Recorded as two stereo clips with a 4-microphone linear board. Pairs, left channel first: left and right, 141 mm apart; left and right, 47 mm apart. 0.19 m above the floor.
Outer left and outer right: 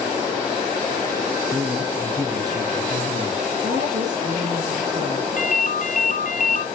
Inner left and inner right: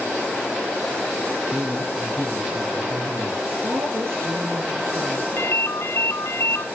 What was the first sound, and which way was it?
A man speaking, 10° right (ahead or behind).